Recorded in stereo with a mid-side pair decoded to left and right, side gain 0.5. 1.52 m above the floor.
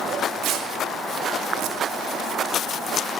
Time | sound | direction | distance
0.4 | tearing paper | 65° right | 2 m